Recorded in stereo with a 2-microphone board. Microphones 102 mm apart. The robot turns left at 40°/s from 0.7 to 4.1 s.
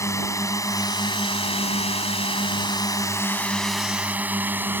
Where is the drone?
30° left (ahead or behind); by 4.8 s 20° right (ahead or behind).